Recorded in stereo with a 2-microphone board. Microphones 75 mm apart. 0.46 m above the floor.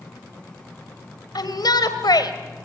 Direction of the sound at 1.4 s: 65° left (ahead or behind).